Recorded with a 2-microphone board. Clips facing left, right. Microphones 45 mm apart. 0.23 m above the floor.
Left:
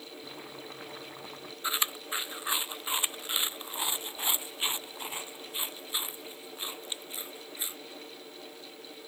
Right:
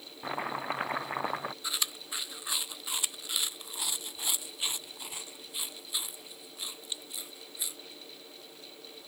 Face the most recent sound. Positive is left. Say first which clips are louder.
# left 4 dB
turn(degrees=30)  # may be behind; listen again after turning